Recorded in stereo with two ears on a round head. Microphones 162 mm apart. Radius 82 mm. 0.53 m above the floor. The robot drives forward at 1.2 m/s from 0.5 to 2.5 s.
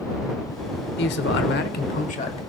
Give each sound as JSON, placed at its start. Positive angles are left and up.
{"t": 1.0, "sound": "a man speaking", "side_deg": 60, "distance_m": 1.3}